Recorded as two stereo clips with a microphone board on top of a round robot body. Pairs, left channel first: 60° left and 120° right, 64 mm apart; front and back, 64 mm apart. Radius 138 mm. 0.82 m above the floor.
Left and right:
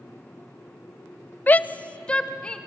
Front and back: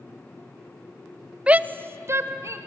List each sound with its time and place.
1.5 s a shout: 115° left, 0.6 m; by 2.6 s 135° left, 1.8 m